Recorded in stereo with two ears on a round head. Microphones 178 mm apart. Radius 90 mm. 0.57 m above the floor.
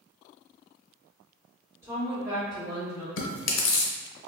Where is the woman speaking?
10° right (ahead or behind), 1.8 m; by 3.1 s 10° left (ahead or behind), 1.4 m.